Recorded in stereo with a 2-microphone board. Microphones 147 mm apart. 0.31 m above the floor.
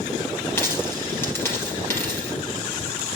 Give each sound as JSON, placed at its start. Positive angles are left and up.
{"t": 0.6, "sound": "a dropped coin", "side_deg": 15, "distance_m": 3.0}